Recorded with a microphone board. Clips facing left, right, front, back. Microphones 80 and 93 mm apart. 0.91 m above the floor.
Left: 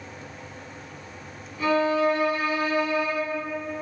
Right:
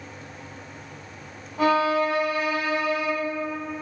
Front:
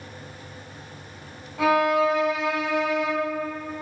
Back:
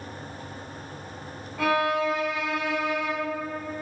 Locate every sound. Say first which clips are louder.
1.6 s a violin: right 1 dB, front 4 dB; 75° right, 1.4 m